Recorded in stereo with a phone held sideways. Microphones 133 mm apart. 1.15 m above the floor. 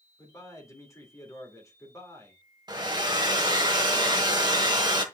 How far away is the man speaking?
About 3 m.